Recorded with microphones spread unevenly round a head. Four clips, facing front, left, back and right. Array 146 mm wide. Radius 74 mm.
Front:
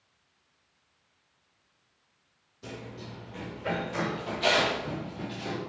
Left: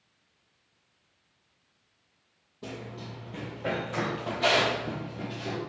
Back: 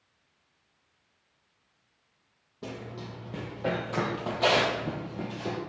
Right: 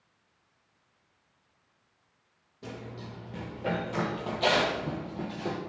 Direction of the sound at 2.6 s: 170° left.